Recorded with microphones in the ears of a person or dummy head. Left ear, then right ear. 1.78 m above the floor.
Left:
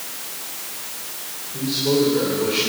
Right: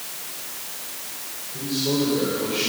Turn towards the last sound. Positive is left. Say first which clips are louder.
# left 4 dB
turn(degrees=25)  # may be behind; listen again after turning